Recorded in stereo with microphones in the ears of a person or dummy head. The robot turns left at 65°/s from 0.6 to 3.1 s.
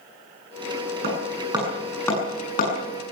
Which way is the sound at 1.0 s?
55° right (ahead or behind).